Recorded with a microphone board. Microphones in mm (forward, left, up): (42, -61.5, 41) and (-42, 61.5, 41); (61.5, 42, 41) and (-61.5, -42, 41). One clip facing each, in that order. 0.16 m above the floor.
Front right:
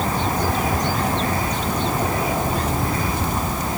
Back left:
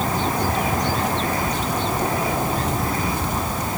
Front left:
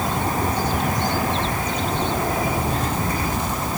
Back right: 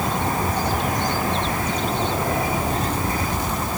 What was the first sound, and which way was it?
Only background noise.